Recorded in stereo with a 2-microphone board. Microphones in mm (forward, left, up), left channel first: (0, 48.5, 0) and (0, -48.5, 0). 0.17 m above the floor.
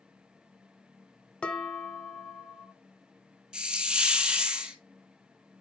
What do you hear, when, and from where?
1.4 s dishes clattering: 10° left (ahead or behind), 0.9 m
3.5 s a hiss: 10° right (ahead or behind), 0.8 m